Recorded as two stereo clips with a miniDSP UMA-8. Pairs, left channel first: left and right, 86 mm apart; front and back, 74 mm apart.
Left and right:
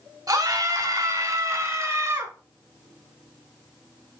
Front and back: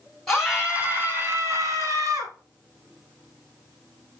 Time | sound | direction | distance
0.3 | a scream | 90° right | 1.3 m